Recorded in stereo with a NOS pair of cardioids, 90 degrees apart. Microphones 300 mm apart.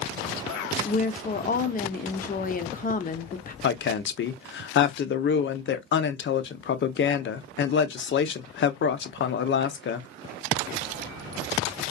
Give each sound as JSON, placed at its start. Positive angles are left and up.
{"t": 0.8, "sound": "a woman speaking", "azimuth_deg": 30, "distance_m": 0.6}
{"t": 3.6, "sound": "a woman speaking", "azimuth_deg": 40, "distance_m": 0.5}